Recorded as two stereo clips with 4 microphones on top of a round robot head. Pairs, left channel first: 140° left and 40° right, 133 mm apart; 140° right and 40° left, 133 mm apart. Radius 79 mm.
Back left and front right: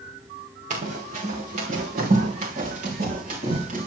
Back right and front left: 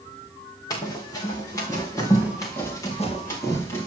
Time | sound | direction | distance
0.7 | running footsteps | 75° right | 3.5 m